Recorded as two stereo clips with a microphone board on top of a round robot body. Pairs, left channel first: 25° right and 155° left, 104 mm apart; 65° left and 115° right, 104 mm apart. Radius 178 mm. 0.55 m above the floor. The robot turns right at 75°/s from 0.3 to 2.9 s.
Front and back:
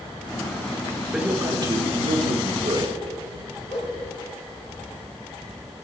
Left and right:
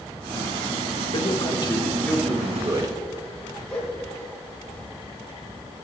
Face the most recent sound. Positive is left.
turn(degrees=-15)